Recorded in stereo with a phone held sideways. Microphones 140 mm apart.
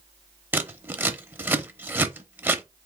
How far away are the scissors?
About 0.7 m.